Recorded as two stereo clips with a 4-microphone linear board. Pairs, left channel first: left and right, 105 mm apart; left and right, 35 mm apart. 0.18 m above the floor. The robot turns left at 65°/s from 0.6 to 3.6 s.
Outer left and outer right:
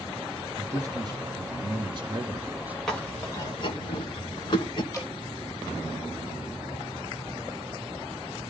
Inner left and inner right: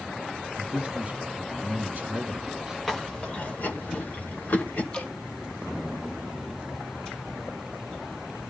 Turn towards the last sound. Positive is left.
turn(degrees=30)  # may be behind; listen again after turning